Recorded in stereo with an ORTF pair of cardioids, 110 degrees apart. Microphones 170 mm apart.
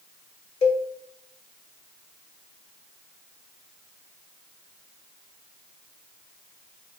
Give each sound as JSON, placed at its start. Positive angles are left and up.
{"t": 0.6, "sound": "a cowbell", "azimuth_deg": 35, "distance_m": 1.5}